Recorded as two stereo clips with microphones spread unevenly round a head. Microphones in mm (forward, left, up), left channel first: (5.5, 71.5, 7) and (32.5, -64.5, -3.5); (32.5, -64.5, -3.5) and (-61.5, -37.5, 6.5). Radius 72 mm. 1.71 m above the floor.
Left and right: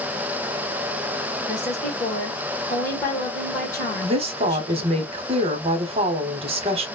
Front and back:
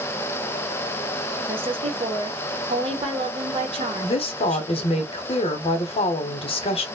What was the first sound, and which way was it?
A woman speaking, 170° left.